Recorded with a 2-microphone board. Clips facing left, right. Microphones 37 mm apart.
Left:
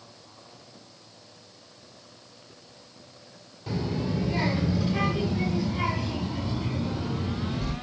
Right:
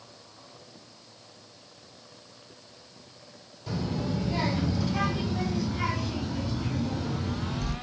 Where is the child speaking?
35° left (ahead or behind), 5 m; by 7.7 s 30° left (ahead or behind), 7 m.